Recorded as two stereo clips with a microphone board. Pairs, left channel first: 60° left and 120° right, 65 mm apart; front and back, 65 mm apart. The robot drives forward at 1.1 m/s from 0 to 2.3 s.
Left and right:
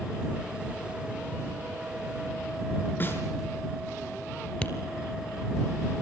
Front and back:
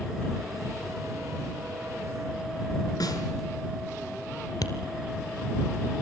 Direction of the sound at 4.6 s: 10° right.